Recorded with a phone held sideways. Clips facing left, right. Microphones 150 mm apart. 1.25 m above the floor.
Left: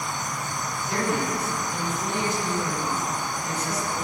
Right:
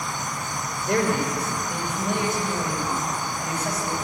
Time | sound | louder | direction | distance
0.9 | a man speaking | right 4 dB | 70° right (ahead or behind) | 5 m